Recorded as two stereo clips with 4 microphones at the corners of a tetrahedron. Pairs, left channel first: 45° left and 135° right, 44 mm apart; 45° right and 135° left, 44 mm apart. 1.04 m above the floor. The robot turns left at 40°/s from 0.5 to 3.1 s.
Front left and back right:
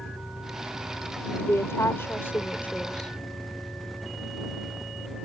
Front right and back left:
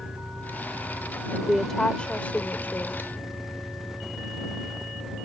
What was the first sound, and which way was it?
An engine running, 95° right.